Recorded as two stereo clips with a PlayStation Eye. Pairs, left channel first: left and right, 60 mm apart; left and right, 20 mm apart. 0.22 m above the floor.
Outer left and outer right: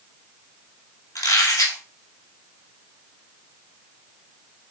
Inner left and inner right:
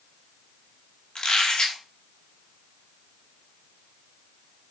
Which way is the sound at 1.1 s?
65° left (ahead or behind).